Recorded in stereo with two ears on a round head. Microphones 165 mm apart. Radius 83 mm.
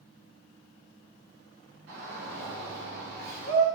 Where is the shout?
70° right (ahead or behind), 5.5 m; by 3.7 s 80° right, 5 m.